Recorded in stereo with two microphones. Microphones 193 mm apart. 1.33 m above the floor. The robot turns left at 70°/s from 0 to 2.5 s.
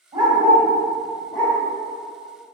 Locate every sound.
0.1 s a dog barking: 25° right (ahead or behind), 1.4 m; by 1.6 s 40° left (ahead or behind), 1.4 m